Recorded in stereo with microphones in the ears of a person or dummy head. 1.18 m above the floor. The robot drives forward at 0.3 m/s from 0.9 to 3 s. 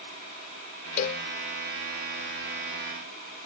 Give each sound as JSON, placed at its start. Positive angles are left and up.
{"t": 1.0, "sound": "a cowbell", "side_deg": 40}